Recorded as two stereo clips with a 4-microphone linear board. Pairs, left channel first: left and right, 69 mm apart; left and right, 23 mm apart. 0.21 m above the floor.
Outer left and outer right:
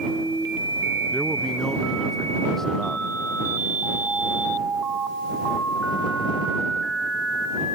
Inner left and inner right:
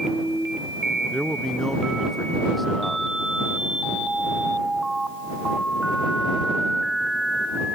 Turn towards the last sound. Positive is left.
turn(degrees=5)  # may be behind; listen again after turning